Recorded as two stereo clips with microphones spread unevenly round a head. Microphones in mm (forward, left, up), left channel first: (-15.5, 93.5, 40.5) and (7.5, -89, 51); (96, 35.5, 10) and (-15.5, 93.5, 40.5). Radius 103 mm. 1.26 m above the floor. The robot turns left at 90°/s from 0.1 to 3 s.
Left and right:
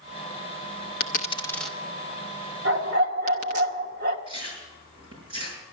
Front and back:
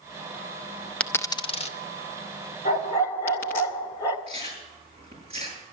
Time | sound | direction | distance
1.0 | a dropped coin | 65° left | 0.8 m
2.6 | a dog barking | 80° right | 1.2 m
4.3 | chewing | 145° right | 6.5 m